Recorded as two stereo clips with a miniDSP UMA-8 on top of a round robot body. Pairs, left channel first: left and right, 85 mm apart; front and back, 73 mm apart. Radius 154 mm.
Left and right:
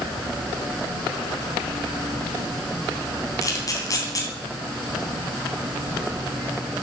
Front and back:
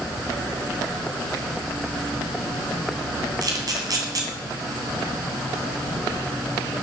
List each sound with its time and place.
3.4 s a camera shutter: 140° left, 2.5 m